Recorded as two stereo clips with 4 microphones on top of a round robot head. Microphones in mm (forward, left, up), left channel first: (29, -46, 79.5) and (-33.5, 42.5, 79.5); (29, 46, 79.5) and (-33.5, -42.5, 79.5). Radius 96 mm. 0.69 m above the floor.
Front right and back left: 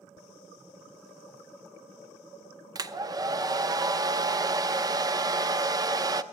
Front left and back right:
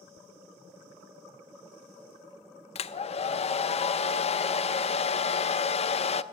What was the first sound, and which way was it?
A hair dryer, 70° left.